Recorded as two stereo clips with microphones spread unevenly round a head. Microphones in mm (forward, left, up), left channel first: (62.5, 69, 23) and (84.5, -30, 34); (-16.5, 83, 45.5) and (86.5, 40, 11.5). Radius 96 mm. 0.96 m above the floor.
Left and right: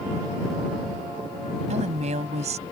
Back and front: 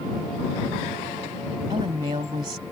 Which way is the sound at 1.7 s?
90° right.